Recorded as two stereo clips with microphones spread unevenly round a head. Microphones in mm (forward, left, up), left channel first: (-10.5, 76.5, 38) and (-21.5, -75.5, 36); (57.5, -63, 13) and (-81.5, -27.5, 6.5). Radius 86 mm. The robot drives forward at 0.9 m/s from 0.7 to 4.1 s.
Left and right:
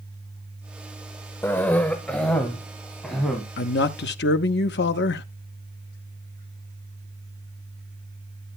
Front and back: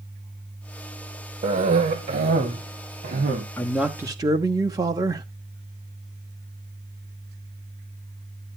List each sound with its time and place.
1.4 s a cough: 160° left, 1.0 m; by 3.4 s 175° left, 2.5 m
3.6 s a man speaking: 65° left, 1.0 m; by 5.2 s 95° left, 0.9 m